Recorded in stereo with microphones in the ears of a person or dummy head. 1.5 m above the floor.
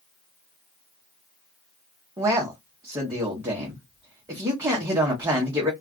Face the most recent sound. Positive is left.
turn(degrees=-15)  # may be behind; listen again after turning